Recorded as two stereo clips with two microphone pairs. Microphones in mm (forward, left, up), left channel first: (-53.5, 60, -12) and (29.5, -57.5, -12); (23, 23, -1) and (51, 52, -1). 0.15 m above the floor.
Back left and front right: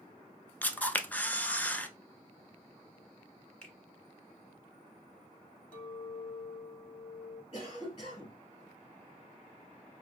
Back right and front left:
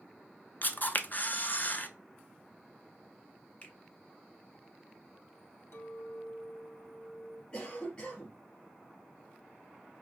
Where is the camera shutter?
160° right, 0.6 m.